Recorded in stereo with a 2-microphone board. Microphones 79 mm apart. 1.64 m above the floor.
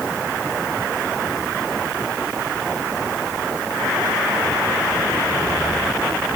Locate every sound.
Only background noise.